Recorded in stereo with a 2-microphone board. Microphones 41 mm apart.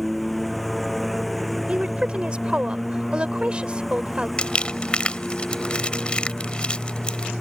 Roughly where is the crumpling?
Left.